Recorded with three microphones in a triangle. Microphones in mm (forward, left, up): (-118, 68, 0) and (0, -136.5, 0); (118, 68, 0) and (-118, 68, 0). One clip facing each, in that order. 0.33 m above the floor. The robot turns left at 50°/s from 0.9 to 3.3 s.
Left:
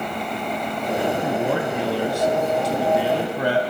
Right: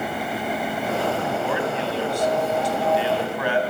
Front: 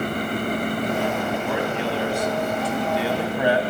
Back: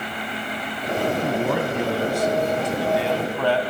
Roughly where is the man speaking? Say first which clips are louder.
Left 2 dB, back 2 dB; behind.